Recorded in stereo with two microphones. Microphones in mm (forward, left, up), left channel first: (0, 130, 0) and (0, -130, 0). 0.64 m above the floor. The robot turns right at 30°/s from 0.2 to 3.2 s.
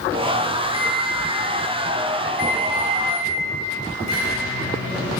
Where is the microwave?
20° right, 3 m; by 5.2 s 60° left, 3 m.